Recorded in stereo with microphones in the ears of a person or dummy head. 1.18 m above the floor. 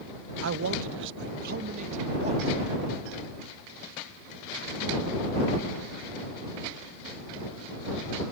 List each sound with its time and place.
0.4 s a man speaking: 70° right (ahead or behind); by 2.6 s 35° right (ahead or behind)